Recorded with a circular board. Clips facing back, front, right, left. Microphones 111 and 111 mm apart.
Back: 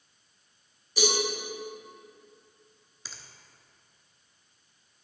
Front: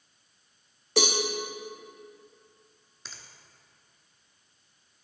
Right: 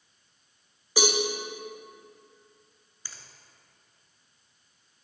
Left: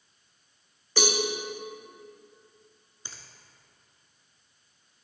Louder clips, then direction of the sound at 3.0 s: Even, left 1 dB; 95° left.